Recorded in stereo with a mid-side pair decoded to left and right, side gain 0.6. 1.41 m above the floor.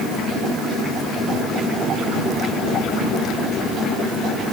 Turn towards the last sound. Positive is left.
No sound to turn to.